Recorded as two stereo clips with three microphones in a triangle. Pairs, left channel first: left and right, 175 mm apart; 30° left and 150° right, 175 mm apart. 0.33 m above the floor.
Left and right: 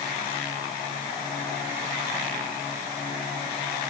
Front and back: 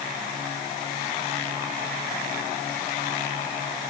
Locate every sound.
Only background noise.